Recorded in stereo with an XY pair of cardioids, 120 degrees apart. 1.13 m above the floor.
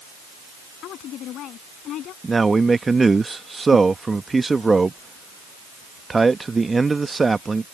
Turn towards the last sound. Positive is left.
turn(degrees=-20)